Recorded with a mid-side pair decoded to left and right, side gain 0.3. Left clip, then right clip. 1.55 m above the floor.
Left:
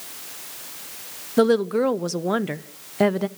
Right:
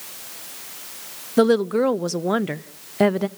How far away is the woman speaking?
About 0.7 m.